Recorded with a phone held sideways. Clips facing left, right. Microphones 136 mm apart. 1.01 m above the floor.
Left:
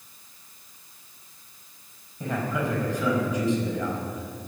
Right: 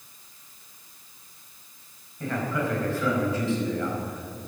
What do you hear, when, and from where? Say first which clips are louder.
2.2 s a man speaking: even; 15° left (ahead or behind), 4.5 m